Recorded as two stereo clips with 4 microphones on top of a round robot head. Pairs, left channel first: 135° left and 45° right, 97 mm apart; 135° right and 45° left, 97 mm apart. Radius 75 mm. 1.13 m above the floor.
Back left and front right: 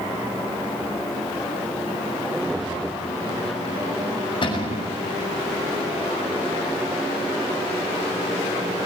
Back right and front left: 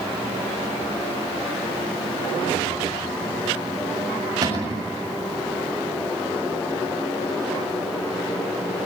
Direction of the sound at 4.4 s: 95° left.